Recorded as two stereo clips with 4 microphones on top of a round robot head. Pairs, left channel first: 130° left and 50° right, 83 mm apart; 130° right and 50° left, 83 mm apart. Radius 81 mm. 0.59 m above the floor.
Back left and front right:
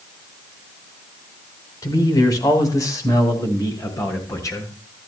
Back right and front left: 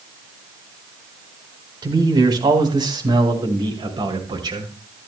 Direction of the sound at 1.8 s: 85° left.